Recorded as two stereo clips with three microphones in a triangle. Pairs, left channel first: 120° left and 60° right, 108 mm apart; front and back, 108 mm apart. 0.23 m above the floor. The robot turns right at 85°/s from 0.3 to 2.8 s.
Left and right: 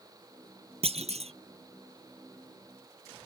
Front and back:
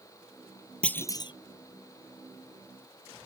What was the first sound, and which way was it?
A clunk, 80° right.